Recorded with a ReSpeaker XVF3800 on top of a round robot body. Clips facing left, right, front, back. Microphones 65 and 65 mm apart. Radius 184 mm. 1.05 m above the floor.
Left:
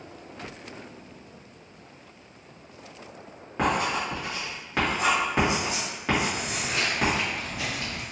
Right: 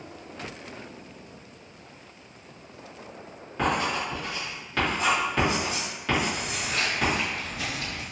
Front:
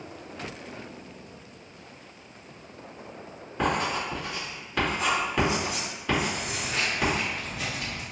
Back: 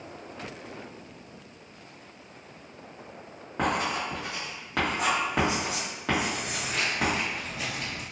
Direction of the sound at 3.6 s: 155° left.